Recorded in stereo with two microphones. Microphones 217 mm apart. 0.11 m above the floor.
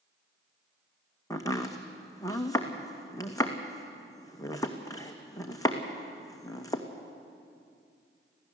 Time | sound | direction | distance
1.3 | chopping | 15° left (ahead or behind) | 2 m